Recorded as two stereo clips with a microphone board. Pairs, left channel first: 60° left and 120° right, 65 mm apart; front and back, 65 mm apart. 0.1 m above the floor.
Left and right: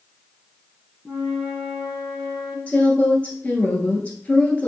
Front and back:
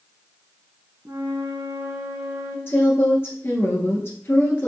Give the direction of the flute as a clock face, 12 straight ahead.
7 o'clock.